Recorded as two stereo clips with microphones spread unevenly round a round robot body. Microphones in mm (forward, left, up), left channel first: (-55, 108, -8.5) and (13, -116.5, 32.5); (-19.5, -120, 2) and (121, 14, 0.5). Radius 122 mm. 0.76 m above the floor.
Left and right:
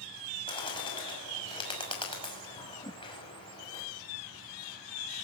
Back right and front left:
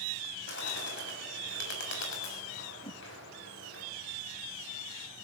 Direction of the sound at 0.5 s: 175° left.